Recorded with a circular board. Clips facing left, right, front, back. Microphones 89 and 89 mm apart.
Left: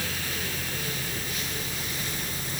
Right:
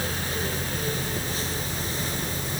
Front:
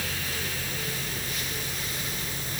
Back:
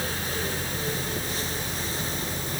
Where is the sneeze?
I don't hear a sneeze.